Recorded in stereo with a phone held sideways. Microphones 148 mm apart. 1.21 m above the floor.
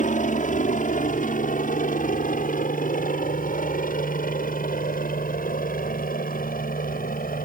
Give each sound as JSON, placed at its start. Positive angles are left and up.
{"t": 0.0, "sound": "a helicopter", "side_deg": 55}